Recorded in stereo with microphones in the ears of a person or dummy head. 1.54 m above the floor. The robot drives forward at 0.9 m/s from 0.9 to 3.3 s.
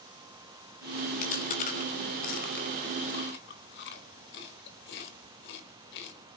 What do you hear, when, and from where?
1.2 s chewing: 40° left (ahead or behind), 4.5 m; by 6.2 s 60° left (ahead or behind), 3.5 m